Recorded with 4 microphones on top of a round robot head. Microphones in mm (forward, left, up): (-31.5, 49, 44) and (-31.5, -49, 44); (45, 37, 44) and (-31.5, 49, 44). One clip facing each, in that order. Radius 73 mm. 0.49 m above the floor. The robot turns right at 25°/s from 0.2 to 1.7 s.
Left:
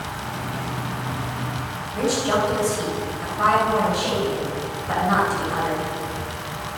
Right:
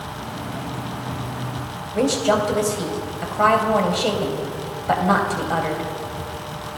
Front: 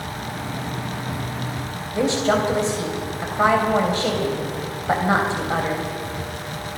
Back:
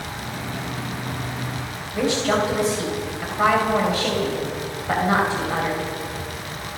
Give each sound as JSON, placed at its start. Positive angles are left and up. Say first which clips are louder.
{"t": 1.9, "sound": "a woman speaking", "louder": "right 3 dB, front 1 dB", "azimuth_deg": -75, "distance_m": 3.5}